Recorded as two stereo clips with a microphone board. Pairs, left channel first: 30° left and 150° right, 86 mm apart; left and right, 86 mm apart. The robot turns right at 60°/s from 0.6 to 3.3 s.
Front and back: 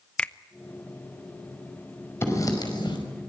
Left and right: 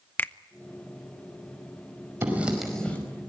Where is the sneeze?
I don't hear a sneeze.